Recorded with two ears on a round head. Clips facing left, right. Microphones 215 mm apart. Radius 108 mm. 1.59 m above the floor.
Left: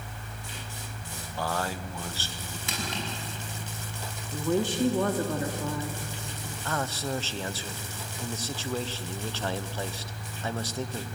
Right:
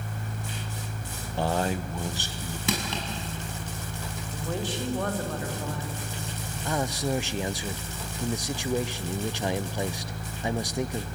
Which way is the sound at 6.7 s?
15° right (ahead or behind).